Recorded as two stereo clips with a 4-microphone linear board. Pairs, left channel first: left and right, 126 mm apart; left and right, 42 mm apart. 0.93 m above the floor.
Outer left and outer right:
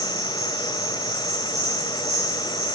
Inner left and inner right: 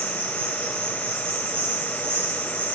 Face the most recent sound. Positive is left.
turn(degrees=-60)  # may be behind; listen again after turning